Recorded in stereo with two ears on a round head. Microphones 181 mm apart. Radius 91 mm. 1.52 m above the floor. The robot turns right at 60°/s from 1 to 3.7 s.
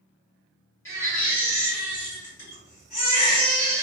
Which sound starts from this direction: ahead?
A baby crying, at 0.8 s.